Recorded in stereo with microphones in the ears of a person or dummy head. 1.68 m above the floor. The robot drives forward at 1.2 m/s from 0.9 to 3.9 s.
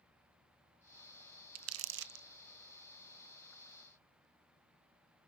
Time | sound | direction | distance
1.6 | crumpling | 80° right | 0.8 m